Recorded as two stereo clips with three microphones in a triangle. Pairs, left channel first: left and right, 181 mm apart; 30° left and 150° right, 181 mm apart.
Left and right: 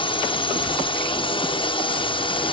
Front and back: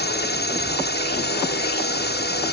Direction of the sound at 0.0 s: 30° left.